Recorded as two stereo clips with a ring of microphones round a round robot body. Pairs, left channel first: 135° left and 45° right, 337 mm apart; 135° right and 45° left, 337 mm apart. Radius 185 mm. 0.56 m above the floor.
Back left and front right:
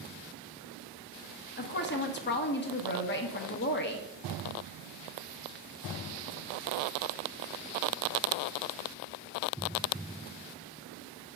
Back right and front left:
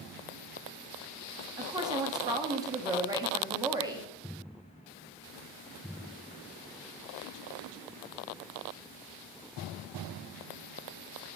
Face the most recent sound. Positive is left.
turn(degrees=115)